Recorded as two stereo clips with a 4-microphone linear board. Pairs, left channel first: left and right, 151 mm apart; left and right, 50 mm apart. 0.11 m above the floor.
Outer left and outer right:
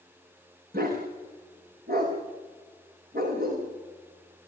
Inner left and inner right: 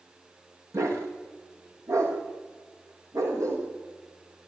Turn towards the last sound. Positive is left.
turn(degrees=-80)